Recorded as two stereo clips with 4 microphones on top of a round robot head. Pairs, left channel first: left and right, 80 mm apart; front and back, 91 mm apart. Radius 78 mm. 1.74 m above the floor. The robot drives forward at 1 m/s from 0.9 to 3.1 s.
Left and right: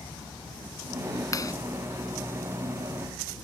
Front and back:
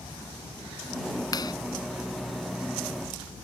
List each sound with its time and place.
1.3 s a clap: 45° left